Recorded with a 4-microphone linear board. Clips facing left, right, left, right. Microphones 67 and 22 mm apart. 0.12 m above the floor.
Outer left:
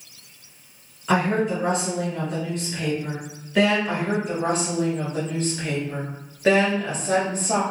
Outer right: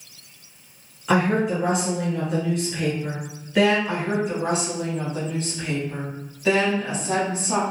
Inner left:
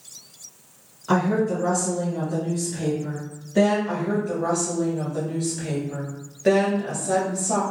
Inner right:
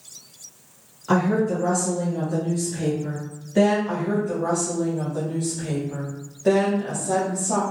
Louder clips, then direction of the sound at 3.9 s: Even, inner right 1 dB; 50° left (ahead or behind).